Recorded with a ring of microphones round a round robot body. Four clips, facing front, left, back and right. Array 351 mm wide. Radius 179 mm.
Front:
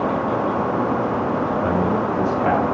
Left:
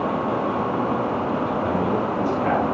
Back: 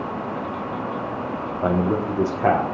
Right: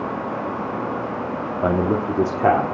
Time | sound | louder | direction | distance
1.6 | a man speaking | right 2 dB, front 2 dB | 110° right | 2 m